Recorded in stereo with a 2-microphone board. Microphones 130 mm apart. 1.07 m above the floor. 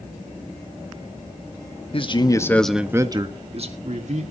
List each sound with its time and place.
1.9 s a man speaking: 45° left (ahead or behind), 1.5 m; by 4.2 s 65° right (ahead or behind), 2.5 m